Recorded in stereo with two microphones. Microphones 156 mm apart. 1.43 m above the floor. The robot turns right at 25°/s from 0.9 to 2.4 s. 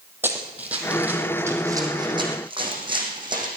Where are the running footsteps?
15° right (ahead or behind), 3 m; by 3.5 s 30° right (ahead or behind), 4.5 m.